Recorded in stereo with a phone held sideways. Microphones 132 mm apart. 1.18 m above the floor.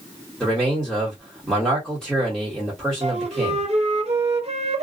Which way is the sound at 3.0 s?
55° right (ahead or behind).